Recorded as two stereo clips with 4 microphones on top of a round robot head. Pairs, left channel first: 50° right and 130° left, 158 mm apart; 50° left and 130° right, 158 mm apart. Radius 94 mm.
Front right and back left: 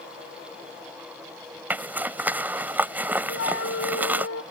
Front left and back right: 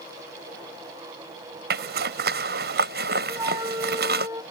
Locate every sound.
1.7 s a zipper: 150° right
3.3 s a flute: 60° right